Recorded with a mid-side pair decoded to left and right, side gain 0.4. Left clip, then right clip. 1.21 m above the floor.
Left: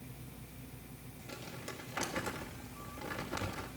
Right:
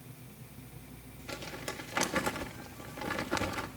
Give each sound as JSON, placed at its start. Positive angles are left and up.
{"t": 1.3, "sound": "crumpling", "azimuth_deg": -65, "distance_m": 1.4}